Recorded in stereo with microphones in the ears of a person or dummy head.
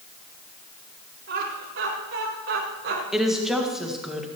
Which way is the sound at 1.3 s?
65° right (ahead or behind).